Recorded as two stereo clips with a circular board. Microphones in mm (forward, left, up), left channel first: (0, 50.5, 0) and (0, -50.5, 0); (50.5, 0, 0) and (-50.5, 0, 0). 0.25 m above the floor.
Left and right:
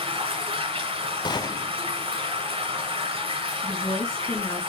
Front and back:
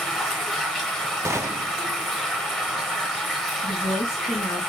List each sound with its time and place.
0.0 s running water: 90° right, 2.5 m
1.2 s a gunshot: 125° left, 0.7 m
3.6 s a woman speaking: 55° left, 4.5 m